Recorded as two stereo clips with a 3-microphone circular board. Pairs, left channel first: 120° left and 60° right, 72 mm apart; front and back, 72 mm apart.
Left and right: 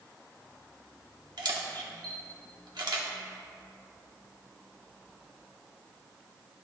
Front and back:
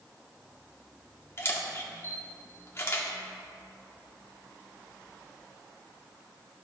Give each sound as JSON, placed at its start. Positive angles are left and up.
{"t": 1.4, "sound": "a camera shutter", "azimuth_deg": -50, "distance_m": 1.2}